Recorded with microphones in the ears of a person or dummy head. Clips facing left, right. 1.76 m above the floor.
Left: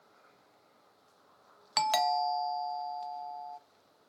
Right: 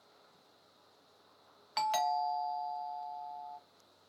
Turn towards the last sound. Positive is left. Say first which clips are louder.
# left 3 dB
turn(degrees=55)  # may be behind; listen again after turning